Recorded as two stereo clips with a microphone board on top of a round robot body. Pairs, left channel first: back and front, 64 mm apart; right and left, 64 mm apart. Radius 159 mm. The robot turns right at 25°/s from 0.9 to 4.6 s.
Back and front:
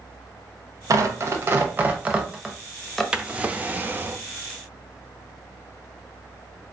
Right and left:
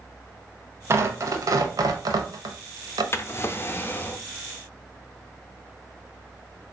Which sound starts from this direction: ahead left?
Tearing paper, at 0.9 s.